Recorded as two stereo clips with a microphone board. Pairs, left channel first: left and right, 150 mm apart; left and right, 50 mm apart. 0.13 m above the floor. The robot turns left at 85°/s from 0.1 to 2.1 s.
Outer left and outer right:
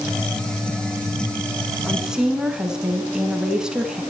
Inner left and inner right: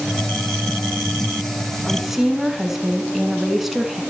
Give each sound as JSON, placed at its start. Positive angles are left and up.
{"t": 1.9, "sound": "a woman speaking", "side_deg": 5, "distance_m": 1.2}